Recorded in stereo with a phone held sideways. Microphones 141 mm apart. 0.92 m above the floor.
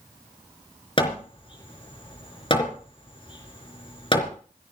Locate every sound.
1.0 s hammering: 40° left (ahead or behind), 3.5 m